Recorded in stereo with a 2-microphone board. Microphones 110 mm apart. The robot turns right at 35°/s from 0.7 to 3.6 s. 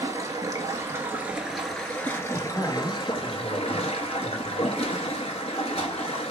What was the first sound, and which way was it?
Running water, 30° right.